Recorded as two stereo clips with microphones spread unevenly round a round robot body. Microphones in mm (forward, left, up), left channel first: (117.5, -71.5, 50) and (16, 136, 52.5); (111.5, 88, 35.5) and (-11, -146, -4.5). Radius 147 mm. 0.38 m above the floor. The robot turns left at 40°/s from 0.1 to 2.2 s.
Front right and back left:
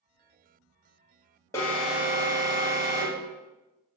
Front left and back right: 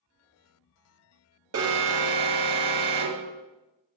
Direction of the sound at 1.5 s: 140° right.